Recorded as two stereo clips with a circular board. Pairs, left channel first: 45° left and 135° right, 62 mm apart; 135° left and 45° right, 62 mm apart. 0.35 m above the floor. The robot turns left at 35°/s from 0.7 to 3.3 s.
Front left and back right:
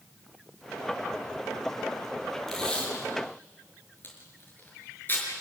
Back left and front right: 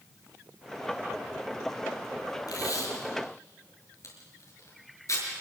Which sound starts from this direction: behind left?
Tape being pulled, at 2.5 s.